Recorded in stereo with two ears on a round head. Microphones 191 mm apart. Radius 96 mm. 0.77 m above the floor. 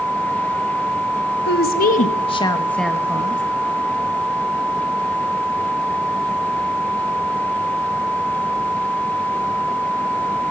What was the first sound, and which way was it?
A woman speaking, 50° left (ahead or behind).